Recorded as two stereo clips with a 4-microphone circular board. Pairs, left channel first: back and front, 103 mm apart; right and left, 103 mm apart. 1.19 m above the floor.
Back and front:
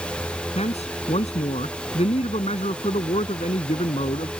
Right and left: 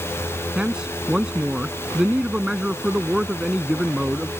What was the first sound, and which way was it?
A man speaking, 175° left.